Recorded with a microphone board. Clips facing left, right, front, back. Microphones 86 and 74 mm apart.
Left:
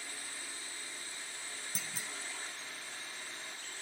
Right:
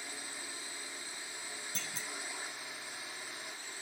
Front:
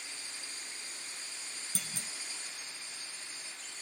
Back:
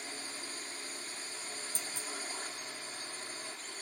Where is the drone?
155° right; by 3.8 s 160° right.